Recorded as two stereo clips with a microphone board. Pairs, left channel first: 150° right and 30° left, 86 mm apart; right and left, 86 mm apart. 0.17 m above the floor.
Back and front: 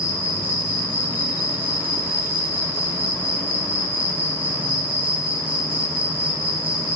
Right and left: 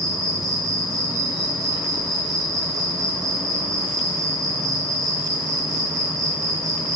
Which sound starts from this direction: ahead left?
An insect, at 0.0 s.